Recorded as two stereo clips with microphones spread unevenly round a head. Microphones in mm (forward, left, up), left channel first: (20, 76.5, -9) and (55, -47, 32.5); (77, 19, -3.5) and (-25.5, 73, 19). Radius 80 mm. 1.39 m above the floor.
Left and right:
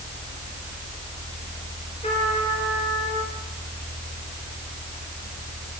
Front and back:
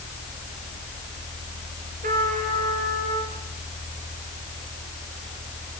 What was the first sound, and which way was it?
A trumpet, 165° left.